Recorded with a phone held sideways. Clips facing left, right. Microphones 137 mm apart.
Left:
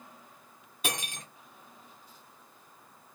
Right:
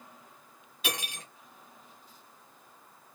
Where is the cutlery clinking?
45° left (ahead or behind), 1.5 m.